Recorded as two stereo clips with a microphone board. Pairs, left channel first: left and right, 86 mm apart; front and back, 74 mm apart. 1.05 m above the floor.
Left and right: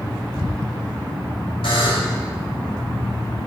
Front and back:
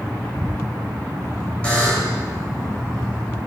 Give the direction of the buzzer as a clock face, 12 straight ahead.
10 o'clock.